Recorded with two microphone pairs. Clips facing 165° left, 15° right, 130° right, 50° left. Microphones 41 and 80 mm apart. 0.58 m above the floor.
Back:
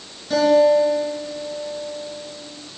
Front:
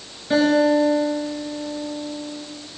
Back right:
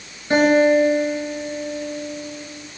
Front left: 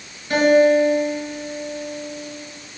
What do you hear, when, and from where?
0.3 s a guitar: 70° right, 5 m